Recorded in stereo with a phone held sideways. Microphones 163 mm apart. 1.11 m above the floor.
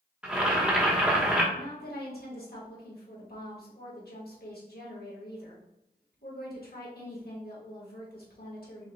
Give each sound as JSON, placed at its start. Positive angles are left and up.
{"t": 0.2, "sound": "boiling", "side_deg": -5, "distance_m": 1.0}
{"t": 1.5, "sound": "a woman speaking", "side_deg": 70, "distance_m": 1.7}